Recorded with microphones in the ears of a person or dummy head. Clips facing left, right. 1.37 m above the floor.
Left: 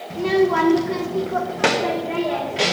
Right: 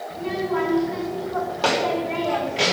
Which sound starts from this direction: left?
A child speaking, at 0.1 s.